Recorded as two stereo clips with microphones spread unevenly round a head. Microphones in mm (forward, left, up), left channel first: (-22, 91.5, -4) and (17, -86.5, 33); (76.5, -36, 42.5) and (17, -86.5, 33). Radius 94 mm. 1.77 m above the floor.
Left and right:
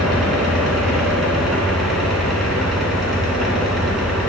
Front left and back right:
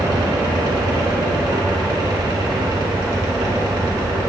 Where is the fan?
170° right, 2.5 m.